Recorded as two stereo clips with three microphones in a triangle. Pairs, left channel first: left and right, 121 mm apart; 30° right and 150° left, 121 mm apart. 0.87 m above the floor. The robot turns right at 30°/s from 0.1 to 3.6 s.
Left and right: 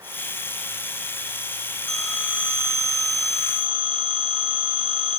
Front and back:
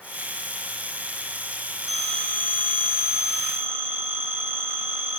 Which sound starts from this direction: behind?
A phone ringing, at 1.9 s.